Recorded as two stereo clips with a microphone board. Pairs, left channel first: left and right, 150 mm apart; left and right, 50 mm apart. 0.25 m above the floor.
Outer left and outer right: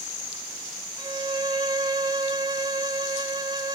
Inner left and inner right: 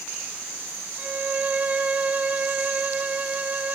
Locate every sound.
1.0 s a violin: 30° right (ahead or behind), 0.5 m